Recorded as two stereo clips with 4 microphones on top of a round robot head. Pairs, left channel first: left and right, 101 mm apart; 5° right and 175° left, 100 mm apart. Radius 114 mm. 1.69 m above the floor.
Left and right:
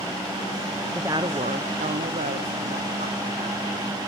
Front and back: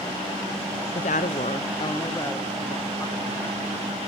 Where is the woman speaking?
Straight ahead, 0.6 m; by 4.0 s 80° right, 3 m.